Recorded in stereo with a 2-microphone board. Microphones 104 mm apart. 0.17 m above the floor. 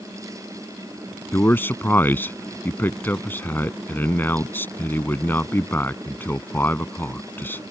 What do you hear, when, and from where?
1.3 s a man speaking: 20° left (ahead or behind)